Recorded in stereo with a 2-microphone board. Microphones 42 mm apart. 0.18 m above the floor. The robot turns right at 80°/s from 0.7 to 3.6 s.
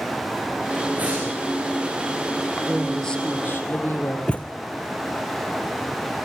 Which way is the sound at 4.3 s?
30° left (ahead or behind).